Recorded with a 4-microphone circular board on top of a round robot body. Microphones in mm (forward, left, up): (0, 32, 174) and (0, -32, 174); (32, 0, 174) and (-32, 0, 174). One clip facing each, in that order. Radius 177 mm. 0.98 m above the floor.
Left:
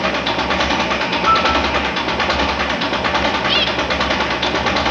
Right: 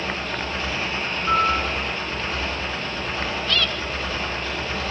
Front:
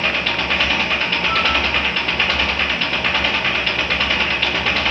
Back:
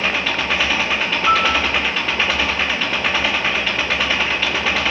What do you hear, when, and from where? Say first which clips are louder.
0.0 s an engine running: left 9 dB, even; 95° left, 2.5 m
1.3 s a piano: left 5 dB, back 4 dB; 145° left, 7.5 m